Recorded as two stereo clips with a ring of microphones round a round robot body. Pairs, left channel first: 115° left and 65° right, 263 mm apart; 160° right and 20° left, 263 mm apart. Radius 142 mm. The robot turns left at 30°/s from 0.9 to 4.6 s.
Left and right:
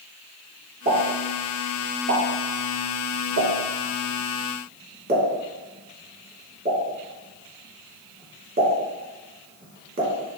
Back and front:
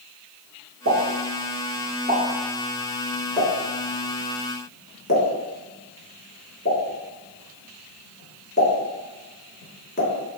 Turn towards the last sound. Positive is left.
turn(degrees=-115)